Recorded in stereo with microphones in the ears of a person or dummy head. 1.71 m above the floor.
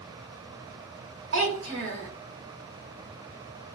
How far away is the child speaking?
About 1.2 m.